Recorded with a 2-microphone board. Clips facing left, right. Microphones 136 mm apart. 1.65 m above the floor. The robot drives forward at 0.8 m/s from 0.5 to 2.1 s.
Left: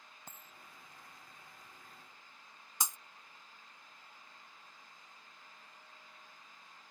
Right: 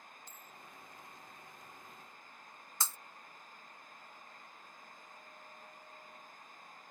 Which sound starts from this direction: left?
A dropped coin, at 0.3 s.